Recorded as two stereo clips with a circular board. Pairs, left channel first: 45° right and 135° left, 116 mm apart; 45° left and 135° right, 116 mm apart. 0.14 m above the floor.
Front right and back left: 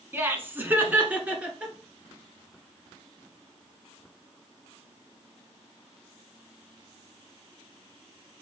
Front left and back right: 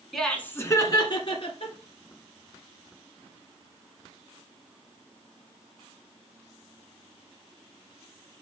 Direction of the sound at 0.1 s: 135° left.